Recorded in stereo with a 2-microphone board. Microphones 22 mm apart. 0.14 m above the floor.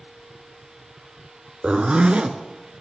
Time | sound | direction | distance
1.6 | a zipper | 55° right (ahead or behind) | 0.5 m